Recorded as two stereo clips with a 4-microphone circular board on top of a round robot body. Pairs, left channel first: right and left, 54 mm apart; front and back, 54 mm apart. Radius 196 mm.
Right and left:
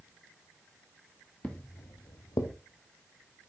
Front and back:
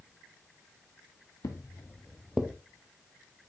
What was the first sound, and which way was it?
Footsteps, 15° right.